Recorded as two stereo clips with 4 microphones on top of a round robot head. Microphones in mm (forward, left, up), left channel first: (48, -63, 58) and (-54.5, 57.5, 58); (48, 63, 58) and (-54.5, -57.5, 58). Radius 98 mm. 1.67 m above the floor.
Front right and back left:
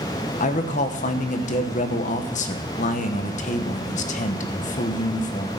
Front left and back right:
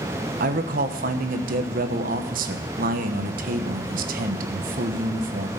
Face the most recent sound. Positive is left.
turn(degrees=-95)